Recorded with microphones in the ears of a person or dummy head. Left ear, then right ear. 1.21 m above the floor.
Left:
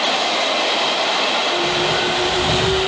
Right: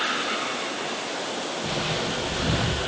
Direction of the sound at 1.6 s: 5° right (ahead or behind).